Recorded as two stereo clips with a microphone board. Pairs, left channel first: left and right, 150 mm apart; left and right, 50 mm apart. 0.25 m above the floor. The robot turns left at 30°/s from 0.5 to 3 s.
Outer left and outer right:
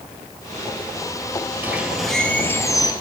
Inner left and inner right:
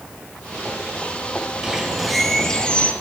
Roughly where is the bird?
Behind.